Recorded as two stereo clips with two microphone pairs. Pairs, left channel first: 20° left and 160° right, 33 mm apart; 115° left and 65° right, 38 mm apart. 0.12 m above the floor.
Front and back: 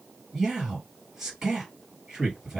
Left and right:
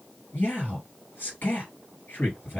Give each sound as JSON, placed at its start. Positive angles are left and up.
{"t": 0.3, "sound": "a man speaking", "azimuth_deg": 125, "distance_m": 2.5}